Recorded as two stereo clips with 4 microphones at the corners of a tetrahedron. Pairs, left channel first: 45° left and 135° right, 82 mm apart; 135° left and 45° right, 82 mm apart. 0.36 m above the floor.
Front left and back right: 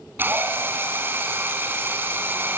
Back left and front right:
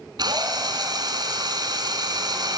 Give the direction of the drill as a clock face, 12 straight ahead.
2 o'clock.